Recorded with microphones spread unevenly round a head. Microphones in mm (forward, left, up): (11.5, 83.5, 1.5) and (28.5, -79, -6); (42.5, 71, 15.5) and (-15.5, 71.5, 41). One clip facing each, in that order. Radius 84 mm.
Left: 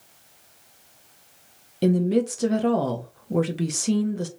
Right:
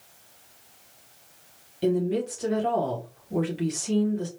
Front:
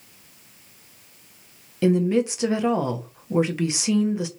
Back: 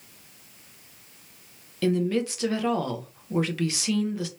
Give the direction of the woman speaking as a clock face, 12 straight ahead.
10 o'clock.